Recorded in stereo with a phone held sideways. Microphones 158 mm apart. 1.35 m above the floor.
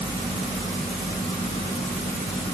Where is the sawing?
No sawing in this recording.